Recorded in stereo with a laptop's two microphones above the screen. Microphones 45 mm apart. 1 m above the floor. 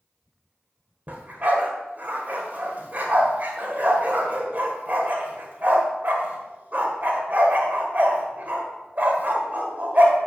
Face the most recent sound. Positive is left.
turn(degrees=-40)  # may be behind; listen again after turning